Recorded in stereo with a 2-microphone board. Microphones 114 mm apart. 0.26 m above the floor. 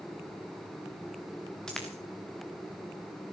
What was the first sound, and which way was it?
A dropped coin, 5° left (ahead or behind).